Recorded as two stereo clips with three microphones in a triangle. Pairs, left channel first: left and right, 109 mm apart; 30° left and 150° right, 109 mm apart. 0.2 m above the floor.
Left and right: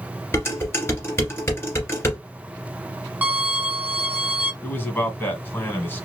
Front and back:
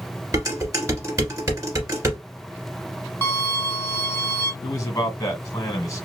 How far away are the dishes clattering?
About 1.9 m.